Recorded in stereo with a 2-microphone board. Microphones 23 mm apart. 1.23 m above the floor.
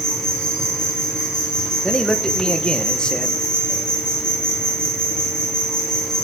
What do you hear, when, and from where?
0.0 s an insect: 35° left (ahead or behind), 4.5 m
1.8 s a man speaking: 35° left (ahead or behind), 1.0 m